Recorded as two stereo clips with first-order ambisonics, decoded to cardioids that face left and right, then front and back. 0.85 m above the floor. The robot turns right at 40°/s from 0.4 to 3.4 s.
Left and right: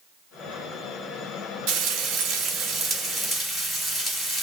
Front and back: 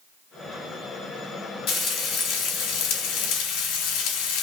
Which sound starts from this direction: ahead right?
Frying, at 1.7 s.